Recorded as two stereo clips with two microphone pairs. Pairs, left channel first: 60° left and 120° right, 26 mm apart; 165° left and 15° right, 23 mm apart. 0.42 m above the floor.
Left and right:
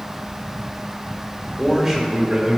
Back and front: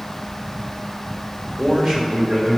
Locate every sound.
1.6 s a man speaking: 45° right, 1.2 m; by 2.6 s 75° right, 1.6 m